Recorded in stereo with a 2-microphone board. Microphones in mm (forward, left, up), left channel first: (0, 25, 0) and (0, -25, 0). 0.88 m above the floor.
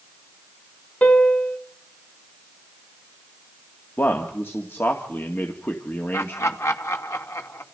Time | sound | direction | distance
1.0 | a piano | 35° left (ahead or behind) | 2 m
4.0 | a man speaking | 45° left (ahead or behind) | 2 m
6.1 | laughter | 65° left (ahead or behind) | 2.5 m